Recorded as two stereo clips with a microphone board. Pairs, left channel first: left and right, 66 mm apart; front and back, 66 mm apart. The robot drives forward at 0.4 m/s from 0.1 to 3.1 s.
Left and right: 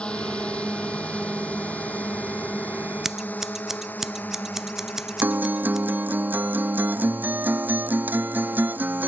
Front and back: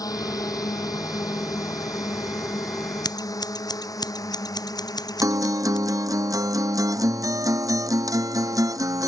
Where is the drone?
15° left; by 9.1 s 30° left.